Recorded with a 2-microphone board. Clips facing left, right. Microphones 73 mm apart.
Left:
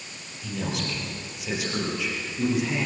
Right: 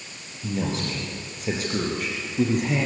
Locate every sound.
0.4 s a man speaking: 30° right (ahead or behind), 6 m; by 2.9 s 50° right (ahead or behind), 6 m